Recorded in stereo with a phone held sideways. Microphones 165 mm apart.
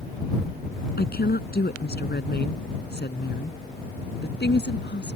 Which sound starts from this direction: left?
A woman speaking, at 1.0 s.